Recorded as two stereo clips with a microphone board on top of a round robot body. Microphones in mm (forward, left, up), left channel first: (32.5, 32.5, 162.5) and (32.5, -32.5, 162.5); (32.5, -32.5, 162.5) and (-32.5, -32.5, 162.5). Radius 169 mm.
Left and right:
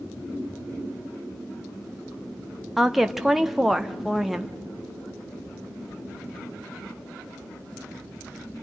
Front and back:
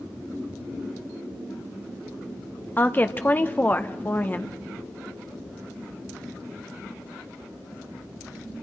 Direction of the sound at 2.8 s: 5° right.